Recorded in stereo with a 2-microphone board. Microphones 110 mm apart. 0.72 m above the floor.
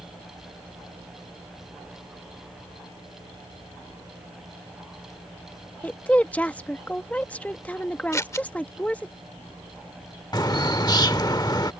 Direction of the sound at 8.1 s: 25° left (ahead or behind).